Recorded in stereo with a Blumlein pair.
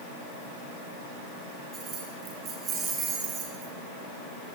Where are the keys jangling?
30° right, 7 m.